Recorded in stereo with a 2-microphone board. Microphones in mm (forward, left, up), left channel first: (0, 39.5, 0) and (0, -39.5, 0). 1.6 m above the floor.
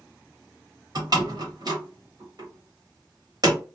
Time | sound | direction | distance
0.9 | a door slam | 50° right (ahead or behind) | 1.3 m